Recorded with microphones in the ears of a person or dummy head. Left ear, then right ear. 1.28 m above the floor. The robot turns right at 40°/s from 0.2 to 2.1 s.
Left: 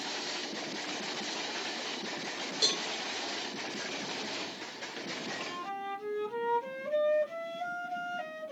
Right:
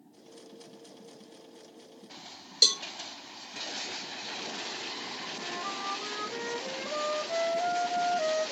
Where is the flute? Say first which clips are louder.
Right 2 dB; 30° right (ahead or behind), 1.9 m.